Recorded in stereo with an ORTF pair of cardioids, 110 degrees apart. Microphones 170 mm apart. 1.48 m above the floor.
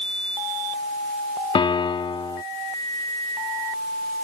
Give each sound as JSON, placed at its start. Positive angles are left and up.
{"t": 1.6, "sound": "a piano", "azimuth_deg": 30}